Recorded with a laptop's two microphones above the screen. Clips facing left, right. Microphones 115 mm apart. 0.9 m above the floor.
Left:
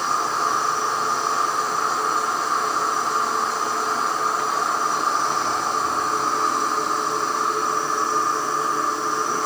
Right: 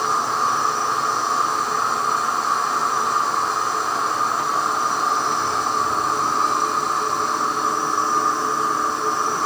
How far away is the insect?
About 8.5 m.